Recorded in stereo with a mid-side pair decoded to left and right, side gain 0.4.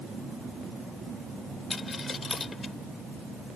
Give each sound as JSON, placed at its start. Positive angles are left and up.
{"t": 1.7, "sound": "a dropped coin", "azimuth_deg": 40}